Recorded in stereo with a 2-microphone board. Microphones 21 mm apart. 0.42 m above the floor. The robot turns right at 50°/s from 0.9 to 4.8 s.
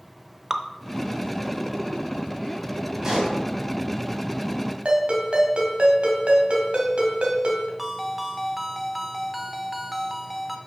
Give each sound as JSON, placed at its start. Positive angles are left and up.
{"t": 0.5, "sound": "dripping", "side_deg": -20, "distance_m": 0.6}
{"t": 3.0, "sound": "a pop", "side_deg": -25, "distance_m": 3.5}
{"t": 4.8, "sound": "a ringtone", "side_deg": -65, "distance_m": 2.0}
{"t": 7.8, "sound": "a ringtone", "side_deg": -5, "distance_m": 0.7}